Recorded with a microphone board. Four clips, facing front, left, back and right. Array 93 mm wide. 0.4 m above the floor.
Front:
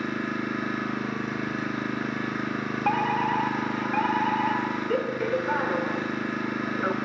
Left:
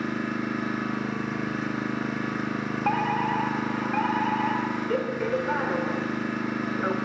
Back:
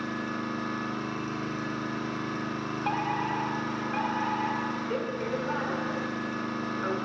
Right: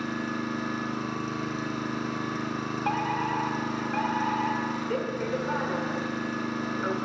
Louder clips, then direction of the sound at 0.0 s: Left 2 dB, front 3 dB; 35° left.